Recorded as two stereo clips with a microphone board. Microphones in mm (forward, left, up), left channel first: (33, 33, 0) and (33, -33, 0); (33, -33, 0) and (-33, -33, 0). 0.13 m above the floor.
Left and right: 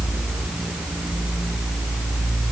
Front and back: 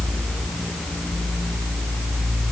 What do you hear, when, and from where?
Only background noise.